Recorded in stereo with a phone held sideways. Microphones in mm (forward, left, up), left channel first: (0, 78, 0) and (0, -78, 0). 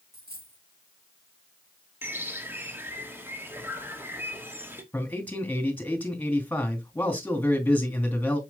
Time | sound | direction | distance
0.1 | a dropped coin | 85° right | 4.5 m
2.0 | a bird | 15° right (ahead or behind) | 1.5 m
4.9 | a man speaking | 10° left (ahead or behind) | 3 m